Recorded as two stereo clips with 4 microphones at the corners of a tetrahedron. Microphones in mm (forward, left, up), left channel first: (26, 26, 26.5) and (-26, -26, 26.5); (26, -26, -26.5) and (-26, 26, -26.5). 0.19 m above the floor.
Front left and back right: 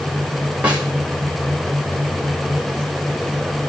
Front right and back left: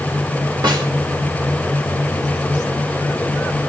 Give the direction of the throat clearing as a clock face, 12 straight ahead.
No throat clearing in this recording.